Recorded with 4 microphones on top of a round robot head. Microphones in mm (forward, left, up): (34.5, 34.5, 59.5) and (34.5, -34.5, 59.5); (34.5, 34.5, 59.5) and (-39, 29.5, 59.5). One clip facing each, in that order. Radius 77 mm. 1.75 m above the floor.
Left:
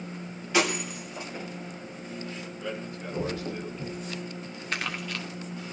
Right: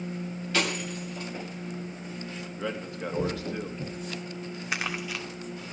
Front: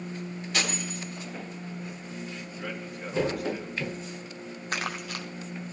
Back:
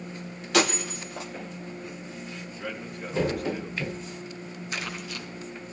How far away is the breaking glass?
About 2 m.